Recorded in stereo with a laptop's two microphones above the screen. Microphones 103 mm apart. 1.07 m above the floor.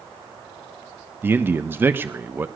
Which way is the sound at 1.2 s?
20° right (ahead or behind).